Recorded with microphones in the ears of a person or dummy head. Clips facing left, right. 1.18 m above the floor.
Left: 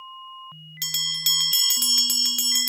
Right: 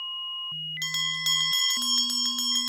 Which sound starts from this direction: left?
A bell, at 0.8 s.